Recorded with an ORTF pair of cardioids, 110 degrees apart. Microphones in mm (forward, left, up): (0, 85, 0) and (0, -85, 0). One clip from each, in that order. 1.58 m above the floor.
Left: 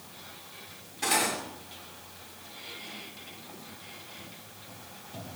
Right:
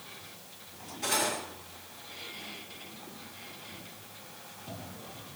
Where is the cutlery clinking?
50° left, 7 m.